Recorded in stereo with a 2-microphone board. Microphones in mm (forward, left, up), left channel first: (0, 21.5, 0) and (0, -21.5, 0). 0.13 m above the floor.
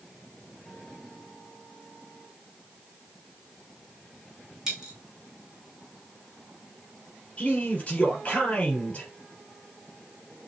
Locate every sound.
4.7 s a dropped coin: 10° right (ahead or behind), 2.5 m
7.4 s a man speaking: 30° left (ahead or behind), 3 m